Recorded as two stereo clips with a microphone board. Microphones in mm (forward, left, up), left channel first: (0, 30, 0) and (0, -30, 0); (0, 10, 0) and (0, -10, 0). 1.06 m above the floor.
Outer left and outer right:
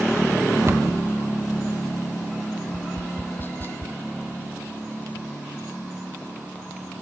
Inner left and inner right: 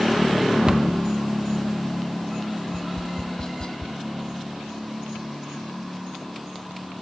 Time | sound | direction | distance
0.7 | a cupboard door | 45° right (ahead or behind) | ?
2.7 | tapping | 35° left (ahead or behind) | ?